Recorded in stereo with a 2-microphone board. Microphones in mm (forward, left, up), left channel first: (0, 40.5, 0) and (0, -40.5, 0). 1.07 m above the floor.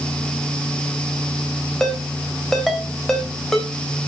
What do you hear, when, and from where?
1.8 s a ringtone: 5° left (ahead or behind), 3 m